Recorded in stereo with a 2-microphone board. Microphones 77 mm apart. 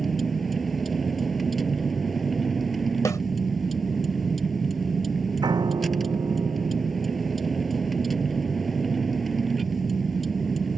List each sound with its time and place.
0.0 s a vehicle: centre (ahead or behind)
3.0 s a snare drum: 50° left (ahead or behind)
5.4 s a piano: 75° right (ahead or behind)